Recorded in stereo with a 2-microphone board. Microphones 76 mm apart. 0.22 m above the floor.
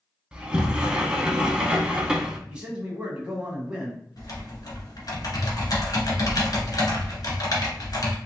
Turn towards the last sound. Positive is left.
turn(degrees=55)  # may be behind; listen again after turning